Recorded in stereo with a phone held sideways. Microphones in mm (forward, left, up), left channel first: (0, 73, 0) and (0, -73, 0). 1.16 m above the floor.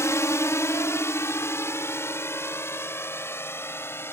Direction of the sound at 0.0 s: 20° left (ahead or behind).